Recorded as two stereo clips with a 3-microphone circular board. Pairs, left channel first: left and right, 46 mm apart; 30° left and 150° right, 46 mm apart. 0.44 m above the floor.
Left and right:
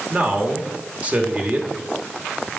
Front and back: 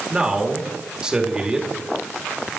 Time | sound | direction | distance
0.1 | a man speaking | 95° right | 1.4 m